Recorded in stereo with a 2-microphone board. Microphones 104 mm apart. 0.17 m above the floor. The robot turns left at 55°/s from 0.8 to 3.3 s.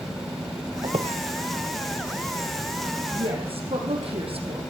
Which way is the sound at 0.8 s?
65° right (ahead or behind).